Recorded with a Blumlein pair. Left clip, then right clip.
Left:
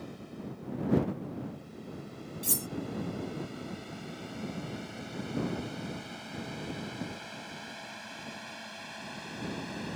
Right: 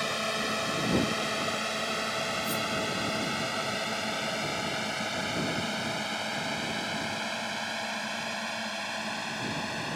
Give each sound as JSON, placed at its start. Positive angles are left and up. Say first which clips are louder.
{"t": 0.0, "sound": "a drone", "louder": "right 16 dB", "azimuth_deg": -40}
{"t": 2.4, "sound": "cutlery clinking", "louder": "right 6 dB", "azimuth_deg": 55}